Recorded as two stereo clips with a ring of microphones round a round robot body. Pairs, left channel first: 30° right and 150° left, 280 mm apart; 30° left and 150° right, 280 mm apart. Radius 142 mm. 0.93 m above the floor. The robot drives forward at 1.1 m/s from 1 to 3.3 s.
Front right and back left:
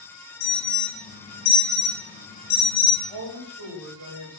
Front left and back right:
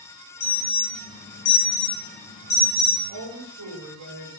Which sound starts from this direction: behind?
A woman speaking, at 3.1 s.